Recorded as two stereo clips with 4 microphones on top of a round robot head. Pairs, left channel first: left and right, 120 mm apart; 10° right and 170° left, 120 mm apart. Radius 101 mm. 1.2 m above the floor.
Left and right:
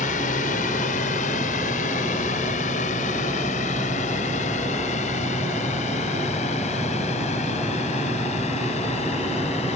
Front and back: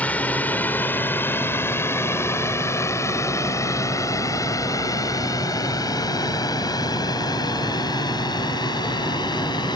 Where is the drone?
70° left; by 9.8 s 45° left.